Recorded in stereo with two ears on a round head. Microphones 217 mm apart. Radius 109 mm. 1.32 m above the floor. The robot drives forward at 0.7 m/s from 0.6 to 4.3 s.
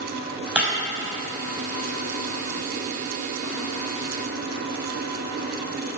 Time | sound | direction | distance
0.6 | breaking glass | 5° right (ahead or behind) | 5 m